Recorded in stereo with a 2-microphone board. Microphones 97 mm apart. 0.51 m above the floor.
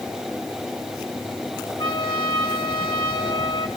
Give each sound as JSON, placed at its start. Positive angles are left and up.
{"t": 1.8, "sound": "a trumpet", "side_deg": 55, "distance_m": 4.5}